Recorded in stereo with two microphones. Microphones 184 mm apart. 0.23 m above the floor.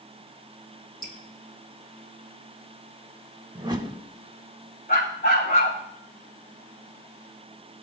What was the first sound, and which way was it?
Dripping, 45° left (ahead or behind).